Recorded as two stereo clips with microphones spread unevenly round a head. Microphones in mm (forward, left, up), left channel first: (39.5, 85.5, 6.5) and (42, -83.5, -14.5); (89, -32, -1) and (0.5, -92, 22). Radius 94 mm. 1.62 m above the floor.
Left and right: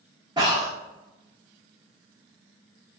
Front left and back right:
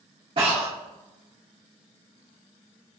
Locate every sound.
0.4 s breathing: 155° right, 1.5 m